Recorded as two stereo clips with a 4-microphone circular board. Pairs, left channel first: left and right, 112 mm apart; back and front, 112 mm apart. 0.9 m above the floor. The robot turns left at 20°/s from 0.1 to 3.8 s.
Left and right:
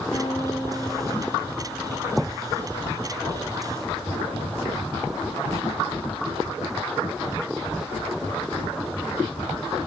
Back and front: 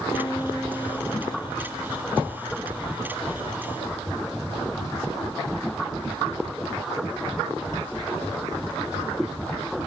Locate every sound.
0.1 s a guitar: 120° left, 8 m; by 2.4 s 75° left, 8 m